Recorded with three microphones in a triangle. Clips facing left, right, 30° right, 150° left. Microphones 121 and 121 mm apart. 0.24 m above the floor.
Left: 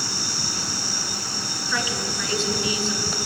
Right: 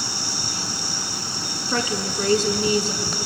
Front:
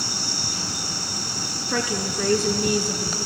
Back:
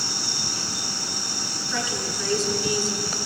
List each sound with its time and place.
1.7 s a woman speaking: 45° right, 2.5 m